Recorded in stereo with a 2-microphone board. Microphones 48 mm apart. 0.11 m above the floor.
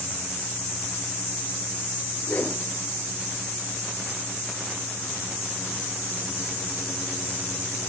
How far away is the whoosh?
About 1.5 m.